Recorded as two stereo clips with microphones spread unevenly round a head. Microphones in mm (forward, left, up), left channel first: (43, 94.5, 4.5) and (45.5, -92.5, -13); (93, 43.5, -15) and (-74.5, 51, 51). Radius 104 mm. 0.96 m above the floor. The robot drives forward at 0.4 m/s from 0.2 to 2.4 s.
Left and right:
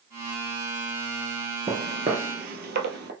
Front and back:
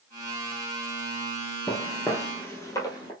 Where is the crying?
No crying in this recording.